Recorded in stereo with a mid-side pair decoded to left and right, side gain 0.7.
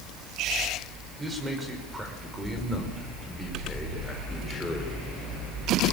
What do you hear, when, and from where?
1.2 s a man speaking: 15° right, 5.5 m; by 5.0 s 15° left, 5 m